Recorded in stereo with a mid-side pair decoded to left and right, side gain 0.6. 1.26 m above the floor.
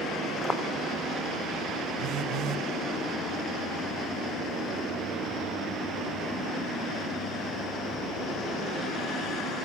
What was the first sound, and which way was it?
Footsteps, 15° left.